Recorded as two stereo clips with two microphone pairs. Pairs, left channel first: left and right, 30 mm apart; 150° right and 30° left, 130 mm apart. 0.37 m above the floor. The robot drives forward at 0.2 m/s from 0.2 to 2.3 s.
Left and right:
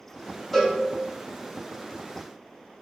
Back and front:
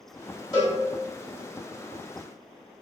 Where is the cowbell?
160° left, 1.9 m.